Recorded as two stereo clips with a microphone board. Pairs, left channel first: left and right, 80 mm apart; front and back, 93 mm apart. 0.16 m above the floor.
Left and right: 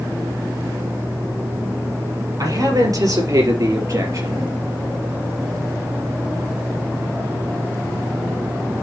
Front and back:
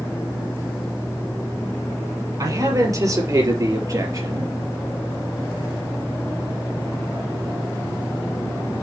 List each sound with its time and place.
2.4 s a man speaking: 130° right, 4.5 m; by 4.5 s 135° right, 3.5 m